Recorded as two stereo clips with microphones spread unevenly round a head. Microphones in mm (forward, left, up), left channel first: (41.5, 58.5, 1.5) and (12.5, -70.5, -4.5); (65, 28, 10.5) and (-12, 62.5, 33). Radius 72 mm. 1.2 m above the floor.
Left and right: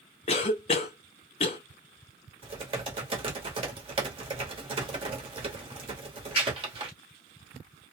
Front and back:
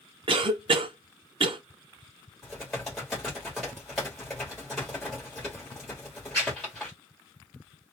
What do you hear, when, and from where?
0.3 s a cough: 130° left, 0.6 m
2.4 s typing on a keyboard: 130° right, 1.0 m